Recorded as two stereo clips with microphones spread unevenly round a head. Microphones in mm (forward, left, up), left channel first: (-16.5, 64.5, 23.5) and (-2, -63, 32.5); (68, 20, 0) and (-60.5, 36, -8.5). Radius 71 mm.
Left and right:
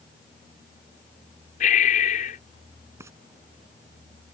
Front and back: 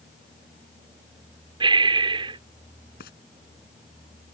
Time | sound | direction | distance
1.6 | breathing | 120° left | ?
3.0 | frying | 15° right | ?